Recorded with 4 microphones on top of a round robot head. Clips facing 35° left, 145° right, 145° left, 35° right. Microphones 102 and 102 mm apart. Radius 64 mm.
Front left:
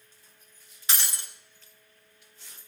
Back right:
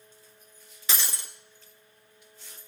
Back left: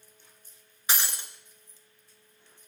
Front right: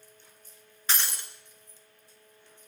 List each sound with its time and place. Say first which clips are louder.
0.9 s breaking glass: even, back left 1 dB; 140° right, 1.5 m